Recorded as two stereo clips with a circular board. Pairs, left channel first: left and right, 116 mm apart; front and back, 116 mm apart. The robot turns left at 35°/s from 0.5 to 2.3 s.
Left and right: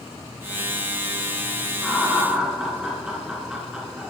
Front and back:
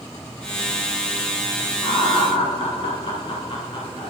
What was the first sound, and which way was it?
Laughter, 5° left.